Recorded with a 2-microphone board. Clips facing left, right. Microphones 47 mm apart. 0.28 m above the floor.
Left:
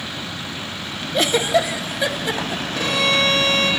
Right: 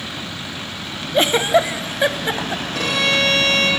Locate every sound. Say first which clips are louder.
1.1 s a giggle: right 3 dB; 30° right (ahead or behind), 0.8 m
2.8 s a violin: even; 75° right (ahead or behind), 10 m